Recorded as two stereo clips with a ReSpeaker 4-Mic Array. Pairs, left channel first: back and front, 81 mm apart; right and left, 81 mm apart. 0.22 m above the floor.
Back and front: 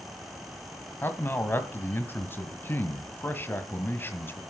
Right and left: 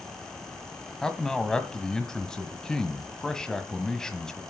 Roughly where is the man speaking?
Behind.